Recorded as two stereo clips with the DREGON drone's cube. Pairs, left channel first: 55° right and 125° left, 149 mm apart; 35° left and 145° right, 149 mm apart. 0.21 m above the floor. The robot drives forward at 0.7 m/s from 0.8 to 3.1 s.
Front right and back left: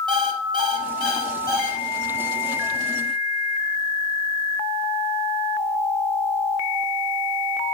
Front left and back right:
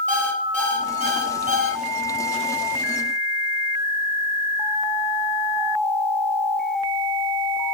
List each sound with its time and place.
0.1 s an alarm clock: 175° right, 3.5 m; by 1.8 s straight behind, 4 m